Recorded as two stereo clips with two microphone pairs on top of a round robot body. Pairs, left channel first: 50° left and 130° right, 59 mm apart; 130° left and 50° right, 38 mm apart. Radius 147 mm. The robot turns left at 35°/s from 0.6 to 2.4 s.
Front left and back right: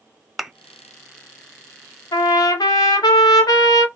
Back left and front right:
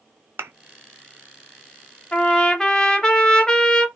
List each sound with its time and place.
0.4 s a thud: 45° right, 0.7 m
2.1 s a trumpet: 65° left, 0.7 m; by 3.9 s 55° left, 0.7 m